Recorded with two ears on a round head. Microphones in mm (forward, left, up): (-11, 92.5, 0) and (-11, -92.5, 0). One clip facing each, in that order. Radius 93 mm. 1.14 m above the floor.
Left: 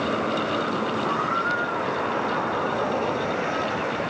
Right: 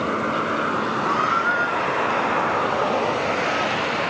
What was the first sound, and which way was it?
A squeak, 50° right (ahead or behind).